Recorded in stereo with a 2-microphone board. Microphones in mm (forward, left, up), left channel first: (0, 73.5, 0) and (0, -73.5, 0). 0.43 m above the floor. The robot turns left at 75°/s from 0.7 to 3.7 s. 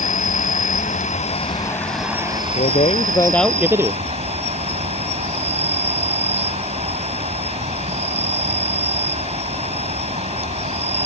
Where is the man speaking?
70° left; by 4.0 s 15° right.